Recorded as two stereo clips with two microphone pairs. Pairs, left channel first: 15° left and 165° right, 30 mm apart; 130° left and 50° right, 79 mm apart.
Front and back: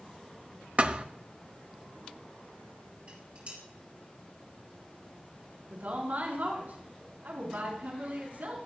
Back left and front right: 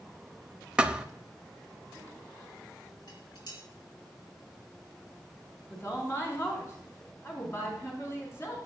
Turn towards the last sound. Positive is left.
turn(degrees=180)